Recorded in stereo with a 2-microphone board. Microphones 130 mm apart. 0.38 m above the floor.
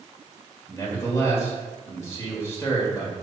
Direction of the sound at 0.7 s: 20° left (ahead or behind).